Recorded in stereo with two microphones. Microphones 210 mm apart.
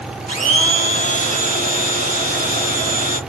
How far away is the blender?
About 1.5 m.